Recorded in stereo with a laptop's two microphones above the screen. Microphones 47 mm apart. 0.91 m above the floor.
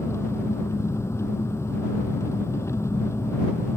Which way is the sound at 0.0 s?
80° left.